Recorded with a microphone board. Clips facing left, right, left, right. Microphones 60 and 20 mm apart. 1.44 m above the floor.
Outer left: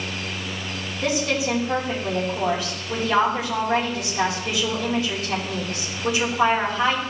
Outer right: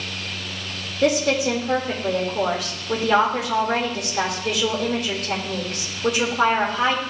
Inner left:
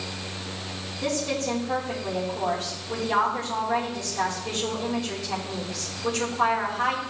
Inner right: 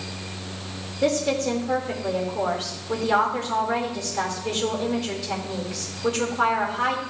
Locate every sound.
1.0 s a woman speaking: 70° right (ahead or behind), 3.5 m